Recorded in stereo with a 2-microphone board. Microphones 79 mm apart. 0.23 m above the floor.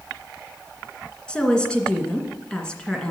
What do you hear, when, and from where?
1.3 s a woman speaking: 10° left (ahead or behind), 2 m